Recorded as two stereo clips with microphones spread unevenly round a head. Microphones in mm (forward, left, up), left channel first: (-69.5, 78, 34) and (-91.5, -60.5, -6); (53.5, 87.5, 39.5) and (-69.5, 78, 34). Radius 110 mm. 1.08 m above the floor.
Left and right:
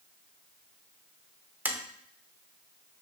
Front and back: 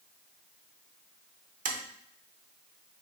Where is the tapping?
Straight behind, 0.7 m.